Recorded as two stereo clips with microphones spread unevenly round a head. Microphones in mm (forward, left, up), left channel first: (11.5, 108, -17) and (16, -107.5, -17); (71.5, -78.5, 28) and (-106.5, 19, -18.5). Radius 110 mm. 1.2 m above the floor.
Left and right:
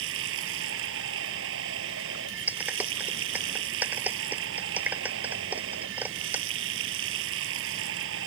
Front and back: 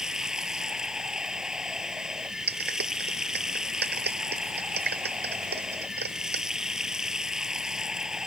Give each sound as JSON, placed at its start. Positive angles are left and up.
{"t": 0.0, "sound": "running water", "azimuth_deg": -120}
{"t": 2.5, "sound": "a clap", "azimuth_deg": -170}